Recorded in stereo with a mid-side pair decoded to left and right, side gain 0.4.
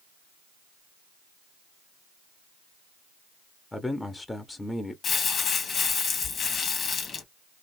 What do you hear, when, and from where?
3.7 s a man speaking: 15° left, 1.1 m
5.0 s crumpling: 60° left, 1.6 m